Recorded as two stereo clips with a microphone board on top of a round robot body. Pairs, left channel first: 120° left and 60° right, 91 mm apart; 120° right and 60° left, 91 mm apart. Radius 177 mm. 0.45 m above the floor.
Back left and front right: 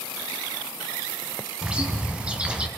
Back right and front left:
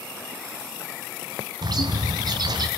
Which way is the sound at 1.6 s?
20° left.